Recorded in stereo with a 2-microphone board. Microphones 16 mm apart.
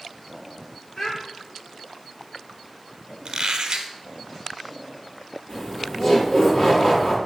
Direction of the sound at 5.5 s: 60° left (ahead or behind).